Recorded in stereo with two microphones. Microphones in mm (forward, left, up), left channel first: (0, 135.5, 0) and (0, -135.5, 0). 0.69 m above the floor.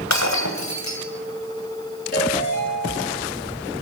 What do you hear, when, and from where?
0.1 s breaking glass: 85° left, 2.5 m
2.1 s a ringtone: 35° left (ahead or behind), 9.5 m